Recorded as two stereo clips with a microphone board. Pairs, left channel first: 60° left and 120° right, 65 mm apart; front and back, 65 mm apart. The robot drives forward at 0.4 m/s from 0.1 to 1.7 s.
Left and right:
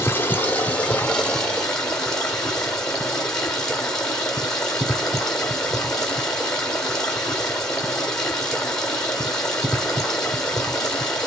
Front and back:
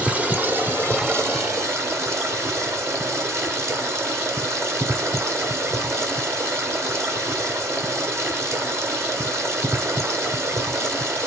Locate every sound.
0.0 s running water: 115° left, 1.0 m; by 11.3 s 140° left, 1.4 m